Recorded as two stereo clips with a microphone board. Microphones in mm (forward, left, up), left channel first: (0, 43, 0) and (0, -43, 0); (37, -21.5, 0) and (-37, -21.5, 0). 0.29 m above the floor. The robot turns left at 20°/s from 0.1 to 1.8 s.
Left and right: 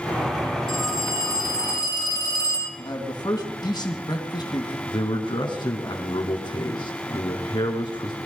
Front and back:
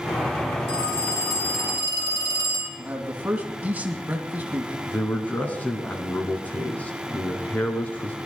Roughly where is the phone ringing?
Ahead left.